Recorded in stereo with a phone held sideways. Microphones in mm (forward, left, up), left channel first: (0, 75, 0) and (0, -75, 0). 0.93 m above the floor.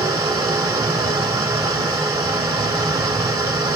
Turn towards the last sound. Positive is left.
turn(degrees=-20)  # may be behind; listen again after turning